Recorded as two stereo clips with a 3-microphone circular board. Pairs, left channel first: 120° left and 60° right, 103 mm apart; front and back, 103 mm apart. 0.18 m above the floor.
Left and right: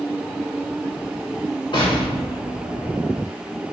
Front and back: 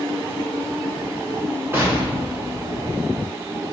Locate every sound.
1.7 s an explosion: 115° left, 1.4 m